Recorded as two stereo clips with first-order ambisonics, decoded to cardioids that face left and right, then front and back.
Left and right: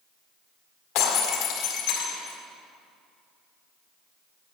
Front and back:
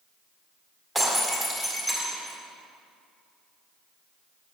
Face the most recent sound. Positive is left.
turn(degrees=90)